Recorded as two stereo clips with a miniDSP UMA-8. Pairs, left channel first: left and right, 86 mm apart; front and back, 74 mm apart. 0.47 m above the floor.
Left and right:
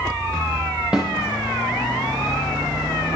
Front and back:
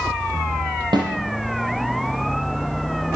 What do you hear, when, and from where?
0.9 s a snare drum: 170° right, 5 m